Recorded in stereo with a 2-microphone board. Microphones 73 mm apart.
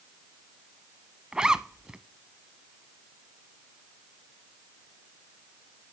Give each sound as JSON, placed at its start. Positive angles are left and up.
{"t": 1.3, "sound": "a zipper", "side_deg": -10, "distance_m": 0.7}